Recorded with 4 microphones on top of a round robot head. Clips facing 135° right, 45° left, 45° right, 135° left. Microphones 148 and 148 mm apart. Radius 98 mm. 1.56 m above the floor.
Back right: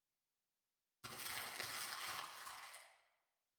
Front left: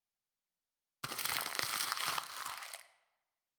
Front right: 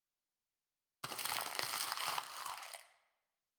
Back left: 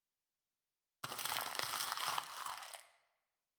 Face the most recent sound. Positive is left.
turn(degrees=40)